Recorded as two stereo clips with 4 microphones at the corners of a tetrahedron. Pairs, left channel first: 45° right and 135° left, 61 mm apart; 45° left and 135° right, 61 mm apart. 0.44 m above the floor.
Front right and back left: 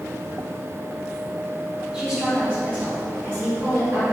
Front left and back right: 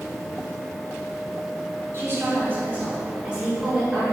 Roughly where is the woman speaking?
Behind right.